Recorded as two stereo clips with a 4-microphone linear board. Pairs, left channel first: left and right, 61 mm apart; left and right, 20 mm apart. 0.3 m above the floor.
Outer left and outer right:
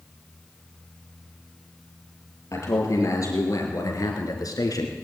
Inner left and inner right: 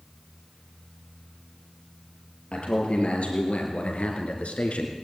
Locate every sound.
2.5 s a man speaking: 55° left (ahead or behind), 6 m; by 4.9 s 75° left (ahead or behind), 4 m